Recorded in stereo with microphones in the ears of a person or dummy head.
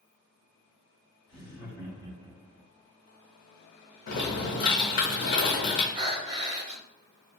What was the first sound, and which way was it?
Laughter, 15° left (ahead or behind).